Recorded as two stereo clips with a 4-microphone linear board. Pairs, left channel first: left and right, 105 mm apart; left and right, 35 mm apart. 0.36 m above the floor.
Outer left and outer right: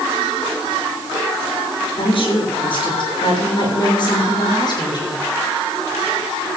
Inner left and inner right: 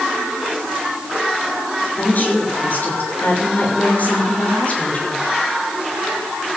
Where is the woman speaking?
60° left (ahead or behind), 6 m; by 5.2 s 45° left (ahead or behind), 6 m.